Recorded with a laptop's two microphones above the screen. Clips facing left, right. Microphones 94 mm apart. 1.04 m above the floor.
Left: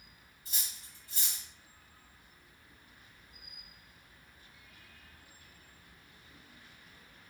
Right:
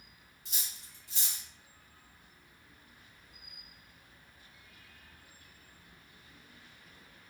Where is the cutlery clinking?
80° right, 0.8 m.